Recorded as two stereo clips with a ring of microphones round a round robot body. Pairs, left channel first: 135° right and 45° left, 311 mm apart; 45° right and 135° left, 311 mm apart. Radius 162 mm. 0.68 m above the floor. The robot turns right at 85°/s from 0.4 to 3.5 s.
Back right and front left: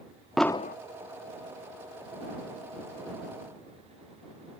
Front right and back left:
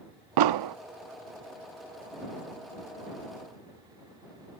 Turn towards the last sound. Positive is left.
turn(degrees=40)